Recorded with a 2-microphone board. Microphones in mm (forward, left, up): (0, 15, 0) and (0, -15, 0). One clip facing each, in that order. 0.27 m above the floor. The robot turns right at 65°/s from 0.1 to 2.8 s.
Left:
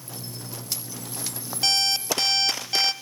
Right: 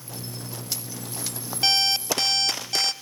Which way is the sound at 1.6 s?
15° right (ahead or behind).